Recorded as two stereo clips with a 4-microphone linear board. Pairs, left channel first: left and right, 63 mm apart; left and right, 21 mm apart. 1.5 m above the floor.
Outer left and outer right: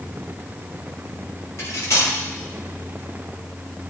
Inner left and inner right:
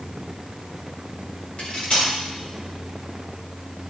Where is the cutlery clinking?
55° left (ahead or behind), 3 m.